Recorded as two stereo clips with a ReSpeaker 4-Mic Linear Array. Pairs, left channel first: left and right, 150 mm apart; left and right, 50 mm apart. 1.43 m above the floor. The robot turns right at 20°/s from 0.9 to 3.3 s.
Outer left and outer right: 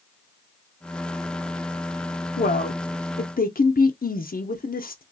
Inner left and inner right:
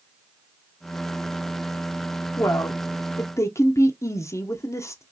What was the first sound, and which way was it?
A woman speaking, 65° left (ahead or behind).